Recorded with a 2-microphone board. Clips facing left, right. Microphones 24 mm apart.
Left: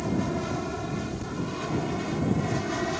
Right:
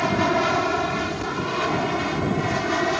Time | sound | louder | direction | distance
0.0 | an aircraft | right 8 dB | 45° right (ahead or behind) | ?